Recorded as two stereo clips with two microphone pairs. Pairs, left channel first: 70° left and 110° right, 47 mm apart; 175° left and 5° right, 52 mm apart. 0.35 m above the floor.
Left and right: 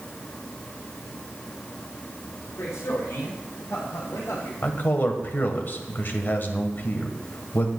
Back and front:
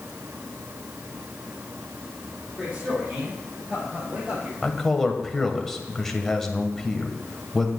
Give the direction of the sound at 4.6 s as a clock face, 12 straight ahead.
9 o'clock.